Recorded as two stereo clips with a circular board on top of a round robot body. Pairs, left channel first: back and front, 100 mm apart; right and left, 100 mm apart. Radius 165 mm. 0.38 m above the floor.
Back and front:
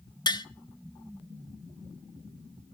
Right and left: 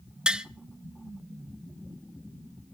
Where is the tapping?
170° left, 1.0 m.